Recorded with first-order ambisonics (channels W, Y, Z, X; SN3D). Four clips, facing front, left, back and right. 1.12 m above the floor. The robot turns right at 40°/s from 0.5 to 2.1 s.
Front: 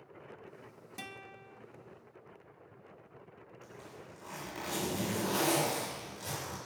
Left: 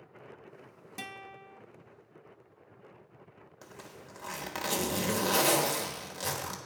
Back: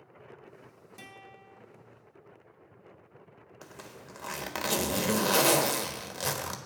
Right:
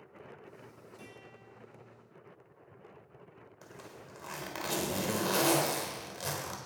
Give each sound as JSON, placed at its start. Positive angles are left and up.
{"t": 1.0, "sound": "a guitar", "azimuth_deg": 75, "distance_m": 0.6}
{"t": 3.6, "sound": "a zipper", "azimuth_deg": 170, "distance_m": 1.2}